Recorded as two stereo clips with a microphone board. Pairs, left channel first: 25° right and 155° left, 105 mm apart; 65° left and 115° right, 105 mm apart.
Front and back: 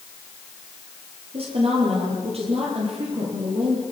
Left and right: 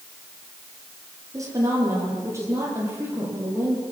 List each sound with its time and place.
1.3 s a woman speaking: 175° right, 8 m; by 3.8 s straight behind, 10.5 m